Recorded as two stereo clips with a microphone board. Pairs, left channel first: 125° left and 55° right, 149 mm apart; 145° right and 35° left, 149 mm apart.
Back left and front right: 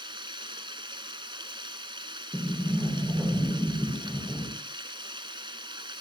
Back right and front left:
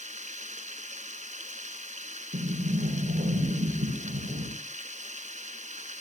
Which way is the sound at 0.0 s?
Straight ahead.